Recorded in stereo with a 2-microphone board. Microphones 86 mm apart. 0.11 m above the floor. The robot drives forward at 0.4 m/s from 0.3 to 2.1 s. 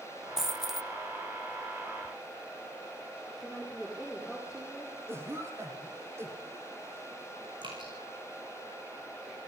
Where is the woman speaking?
Centre (ahead or behind), 9.5 m.